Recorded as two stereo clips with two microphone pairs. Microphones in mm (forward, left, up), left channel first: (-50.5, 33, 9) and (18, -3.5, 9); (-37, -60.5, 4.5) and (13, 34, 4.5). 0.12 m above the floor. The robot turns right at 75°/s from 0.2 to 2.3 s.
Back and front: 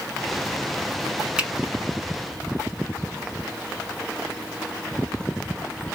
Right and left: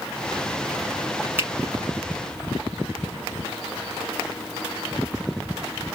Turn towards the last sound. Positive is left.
turn(degrees=95)